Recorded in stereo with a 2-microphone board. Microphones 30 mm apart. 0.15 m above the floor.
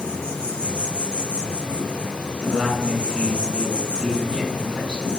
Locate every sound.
0.0 s an insect: 35° left (ahead or behind), 1.1 m
2.4 s a man speaking: 30° right (ahead or behind), 1.6 m